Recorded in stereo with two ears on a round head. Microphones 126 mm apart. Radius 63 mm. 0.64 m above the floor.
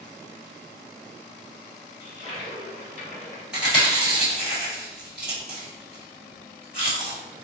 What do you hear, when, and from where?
2.0 s a toilet flushing: 60° left (ahead or behind), 1.4 m
3.5 s chewing: 5° right (ahead or behind), 1.7 m